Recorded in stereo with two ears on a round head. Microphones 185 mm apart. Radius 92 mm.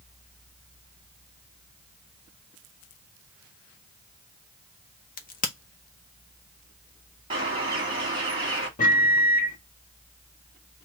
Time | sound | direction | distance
5.2 | a crack | 40° left (ahead or behind) | 0.9 m
7.3 | a bird | 25° right (ahead or behind) | 2.5 m
8.8 | a microwave | 40° left (ahead or behind) | 1.4 m